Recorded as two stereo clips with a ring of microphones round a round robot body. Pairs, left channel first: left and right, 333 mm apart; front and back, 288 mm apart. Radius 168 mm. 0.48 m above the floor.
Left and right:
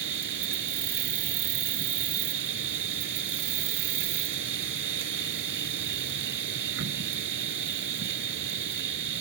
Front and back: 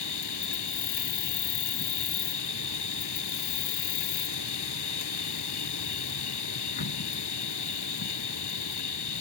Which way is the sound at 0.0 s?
35° right.